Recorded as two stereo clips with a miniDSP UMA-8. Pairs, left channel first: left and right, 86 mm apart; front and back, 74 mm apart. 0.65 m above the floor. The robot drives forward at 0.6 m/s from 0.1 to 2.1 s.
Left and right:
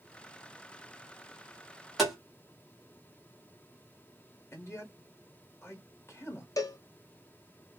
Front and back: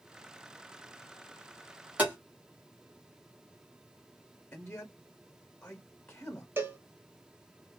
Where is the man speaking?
55° left, 0.6 m.